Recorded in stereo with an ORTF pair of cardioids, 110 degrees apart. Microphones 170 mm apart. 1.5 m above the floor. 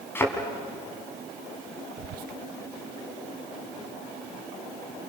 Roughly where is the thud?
Ahead.